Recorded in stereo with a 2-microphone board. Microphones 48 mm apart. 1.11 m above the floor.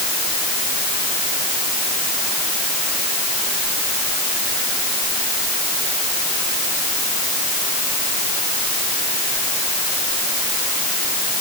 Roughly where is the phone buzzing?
No phone buzzing in this recording.